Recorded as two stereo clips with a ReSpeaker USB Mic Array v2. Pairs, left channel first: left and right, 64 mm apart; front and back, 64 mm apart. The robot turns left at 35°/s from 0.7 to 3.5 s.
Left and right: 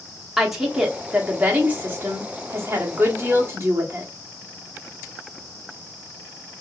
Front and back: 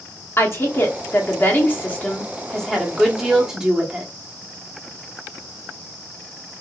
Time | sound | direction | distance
0.4 | a woman speaking | 10° right | 1.0 m